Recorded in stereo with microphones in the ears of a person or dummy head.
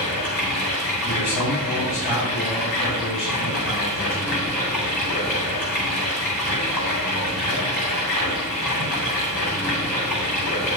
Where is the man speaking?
75° left (ahead or behind), 3.5 m.